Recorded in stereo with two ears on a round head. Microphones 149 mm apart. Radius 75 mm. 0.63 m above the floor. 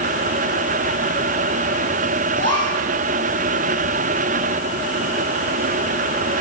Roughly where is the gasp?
Right.